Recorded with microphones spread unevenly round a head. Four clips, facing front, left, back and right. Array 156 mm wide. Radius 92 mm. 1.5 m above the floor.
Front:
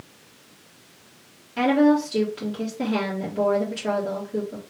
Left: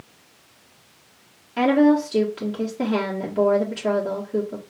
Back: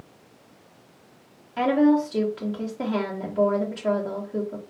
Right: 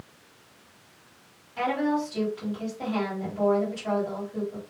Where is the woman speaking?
75° left, 1.7 m.